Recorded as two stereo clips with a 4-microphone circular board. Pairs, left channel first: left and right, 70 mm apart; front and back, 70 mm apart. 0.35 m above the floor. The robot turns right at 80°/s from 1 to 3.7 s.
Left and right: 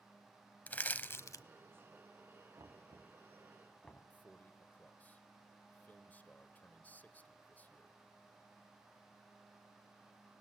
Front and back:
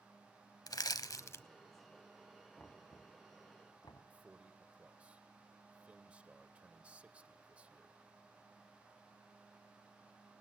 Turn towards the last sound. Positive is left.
turn(degrees=125)